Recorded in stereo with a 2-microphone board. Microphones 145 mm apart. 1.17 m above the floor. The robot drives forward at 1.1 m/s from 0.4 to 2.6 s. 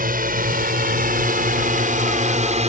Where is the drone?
80° right; by 2.7 s 50° right (ahead or behind).